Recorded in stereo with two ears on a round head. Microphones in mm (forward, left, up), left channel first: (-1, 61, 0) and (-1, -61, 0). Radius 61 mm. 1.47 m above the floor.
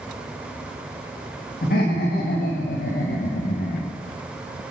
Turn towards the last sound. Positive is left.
turn(degrees=40)  # may be behind; listen again after turning